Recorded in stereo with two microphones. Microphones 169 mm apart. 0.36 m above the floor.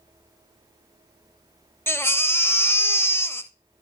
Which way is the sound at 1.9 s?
15° left (ahead or behind).